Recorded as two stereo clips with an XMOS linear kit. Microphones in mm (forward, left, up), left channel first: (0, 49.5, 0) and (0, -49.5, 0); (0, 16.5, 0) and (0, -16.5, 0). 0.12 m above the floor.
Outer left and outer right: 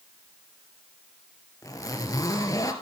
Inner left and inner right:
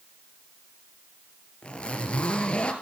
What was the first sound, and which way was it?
A zipper, 35° left (ahead or behind).